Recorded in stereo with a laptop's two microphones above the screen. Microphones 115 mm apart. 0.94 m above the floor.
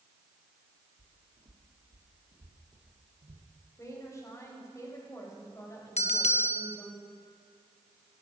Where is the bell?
75° left (ahead or behind), 0.6 m.